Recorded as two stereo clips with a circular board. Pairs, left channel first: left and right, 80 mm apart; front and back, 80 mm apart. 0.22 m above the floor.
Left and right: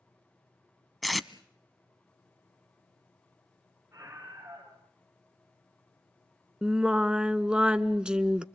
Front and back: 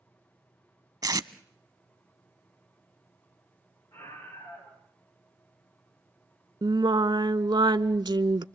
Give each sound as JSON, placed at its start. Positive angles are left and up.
{"t": 1.0, "sound": "tape being pulled", "azimuth_deg": 180, "distance_m": 0.7}
{"t": 3.9, "sound": "a scream", "azimuth_deg": -35, "distance_m": 4.0}
{"t": 6.6, "sound": "singing", "azimuth_deg": -165, "distance_m": 0.6}